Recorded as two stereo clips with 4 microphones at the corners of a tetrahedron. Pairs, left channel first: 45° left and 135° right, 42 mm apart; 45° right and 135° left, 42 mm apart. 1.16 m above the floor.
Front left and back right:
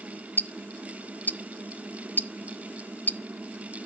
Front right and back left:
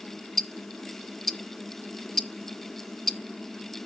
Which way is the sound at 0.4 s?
40° left.